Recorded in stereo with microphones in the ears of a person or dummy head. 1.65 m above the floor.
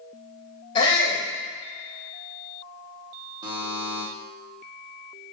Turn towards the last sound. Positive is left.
turn(degrees=-25)  # may be behind; listen again after turning